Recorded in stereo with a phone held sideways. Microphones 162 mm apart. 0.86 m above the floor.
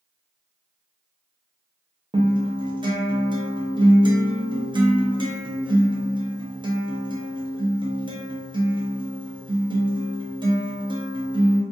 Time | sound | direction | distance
2.1 | a guitar | 30° right (ahead or behind) | 0.6 m